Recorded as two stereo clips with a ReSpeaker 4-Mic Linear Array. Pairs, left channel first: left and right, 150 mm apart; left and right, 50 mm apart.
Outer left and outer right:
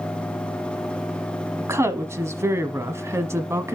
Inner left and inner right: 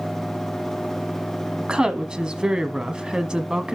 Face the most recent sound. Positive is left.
turn(degrees=-20)  # may be behind; listen again after turning